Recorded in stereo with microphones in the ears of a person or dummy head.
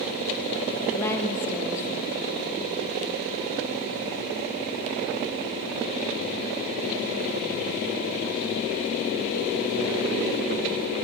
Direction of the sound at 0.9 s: 15° left (ahead or behind).